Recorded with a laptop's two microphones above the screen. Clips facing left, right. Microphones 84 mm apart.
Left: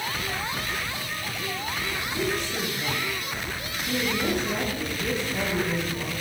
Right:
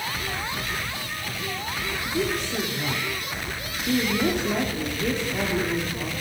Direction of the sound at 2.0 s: 45° right (ahead or behind).